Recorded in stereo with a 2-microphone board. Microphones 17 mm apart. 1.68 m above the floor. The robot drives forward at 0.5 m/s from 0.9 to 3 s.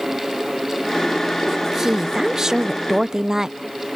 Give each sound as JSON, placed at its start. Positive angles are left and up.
{"t": 1.5, "sound": "a woman speaking", "side_deg": -20}